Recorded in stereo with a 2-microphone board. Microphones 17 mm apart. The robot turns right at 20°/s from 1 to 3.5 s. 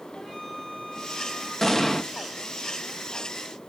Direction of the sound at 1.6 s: 15° left (ahead or behind).